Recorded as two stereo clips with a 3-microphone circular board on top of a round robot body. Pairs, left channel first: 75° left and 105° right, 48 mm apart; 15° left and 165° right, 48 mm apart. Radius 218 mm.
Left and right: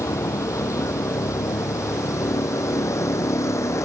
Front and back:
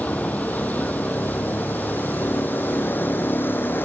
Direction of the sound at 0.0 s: 75° left.